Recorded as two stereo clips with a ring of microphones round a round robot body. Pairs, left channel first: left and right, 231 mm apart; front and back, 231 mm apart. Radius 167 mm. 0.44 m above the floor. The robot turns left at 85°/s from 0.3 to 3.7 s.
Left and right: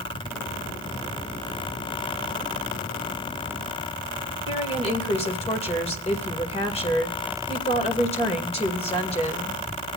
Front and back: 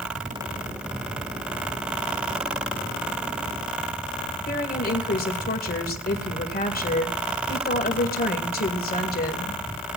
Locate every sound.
4.5 s a woman speaking: 35° left, 2 m